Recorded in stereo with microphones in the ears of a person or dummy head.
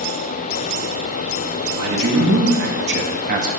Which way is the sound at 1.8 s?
70° right (ahead or behind).